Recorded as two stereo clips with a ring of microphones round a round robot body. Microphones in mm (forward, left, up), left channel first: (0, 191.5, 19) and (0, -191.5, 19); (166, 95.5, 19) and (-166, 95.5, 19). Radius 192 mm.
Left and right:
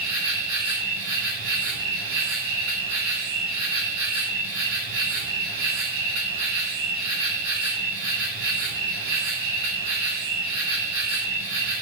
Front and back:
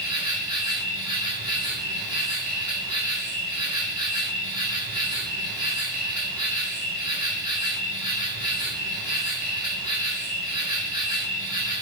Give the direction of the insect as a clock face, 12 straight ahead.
3 o'clock.